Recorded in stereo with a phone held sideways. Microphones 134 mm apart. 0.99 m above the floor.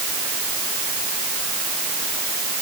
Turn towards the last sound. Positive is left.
No sound to turn to.